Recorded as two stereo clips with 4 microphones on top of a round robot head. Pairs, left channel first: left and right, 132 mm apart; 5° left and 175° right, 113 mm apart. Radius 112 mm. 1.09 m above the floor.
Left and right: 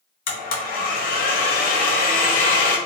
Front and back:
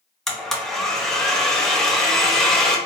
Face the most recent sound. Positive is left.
turn(degrees=90)